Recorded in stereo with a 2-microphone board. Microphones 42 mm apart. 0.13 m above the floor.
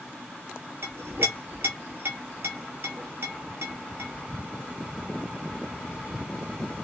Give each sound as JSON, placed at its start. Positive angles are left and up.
{"t": 0.8, "sound": "a clink", "side_deg": -65, "distance_m": 1.4}